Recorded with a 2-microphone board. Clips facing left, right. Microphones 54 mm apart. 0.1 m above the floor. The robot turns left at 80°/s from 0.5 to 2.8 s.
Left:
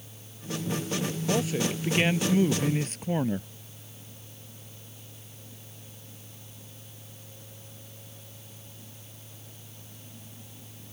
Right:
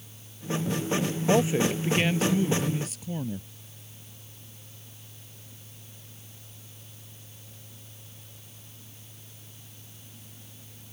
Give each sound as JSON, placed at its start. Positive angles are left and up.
{"t": 1.3, "sound": "a man speaking", "azimuth_deg": -135}